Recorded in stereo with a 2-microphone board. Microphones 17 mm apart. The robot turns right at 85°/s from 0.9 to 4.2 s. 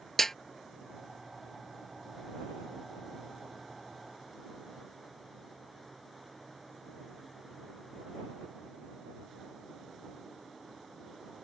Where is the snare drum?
25° left (ahead or behind).